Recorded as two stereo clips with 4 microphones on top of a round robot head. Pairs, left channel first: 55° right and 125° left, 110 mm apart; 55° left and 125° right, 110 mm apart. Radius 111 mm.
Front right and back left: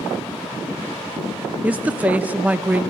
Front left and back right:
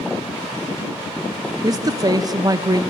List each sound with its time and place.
1.6 s a woman speaking: 160° right, 0.6 m